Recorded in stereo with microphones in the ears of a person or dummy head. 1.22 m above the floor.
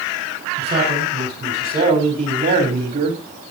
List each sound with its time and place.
0.6 s a man speaking: 35° right (ahead or behind), 5 m; by 3.2 s 40° right (ahead or behind), 3 m